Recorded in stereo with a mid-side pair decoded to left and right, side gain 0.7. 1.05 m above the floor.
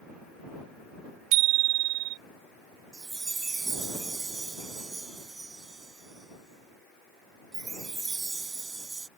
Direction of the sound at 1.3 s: 65° right.